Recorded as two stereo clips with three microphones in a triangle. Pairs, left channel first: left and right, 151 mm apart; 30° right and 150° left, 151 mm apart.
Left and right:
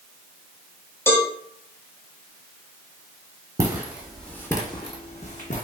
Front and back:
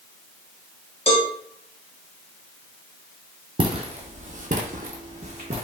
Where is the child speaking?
No child speaking in this recording.